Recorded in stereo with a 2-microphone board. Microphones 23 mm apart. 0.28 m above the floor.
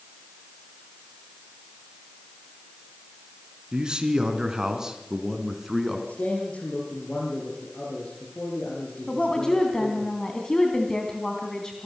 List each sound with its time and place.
3.7 s a man speaking: 40° right (ahead or behind), 3.5 m; by 6.0 s 10° right (ahead or behind), 3.5 m
6.1 s a man speaking: 75° left (ahead or behind), 6 m
9.1 s a woman speaking: 25° left (ahead or behind), 3 m